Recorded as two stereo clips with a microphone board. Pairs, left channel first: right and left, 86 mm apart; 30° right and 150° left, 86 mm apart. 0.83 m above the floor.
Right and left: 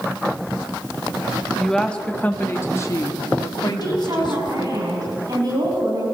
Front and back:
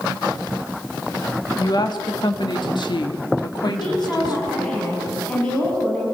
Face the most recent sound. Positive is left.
turn(degrees=50)